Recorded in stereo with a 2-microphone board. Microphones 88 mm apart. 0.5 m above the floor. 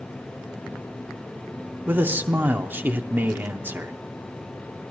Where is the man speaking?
25° right (ahead or behind), 0.7 m.